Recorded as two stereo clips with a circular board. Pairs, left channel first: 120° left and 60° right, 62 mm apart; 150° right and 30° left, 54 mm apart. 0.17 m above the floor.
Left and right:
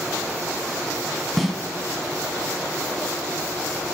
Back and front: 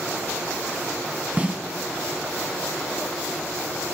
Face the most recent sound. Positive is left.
turn(degrees=30)